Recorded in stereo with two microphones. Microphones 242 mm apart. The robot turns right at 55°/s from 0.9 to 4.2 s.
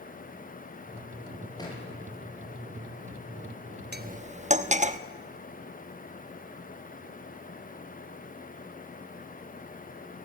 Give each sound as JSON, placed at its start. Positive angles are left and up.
{"t": 1.6, "sound": "a thud", "side_deg": 15, "distance_m": 8.5}
{"t": 3.9, "sound": "cutlery clinking", "side_deg": -45, "distance_m": 1.0}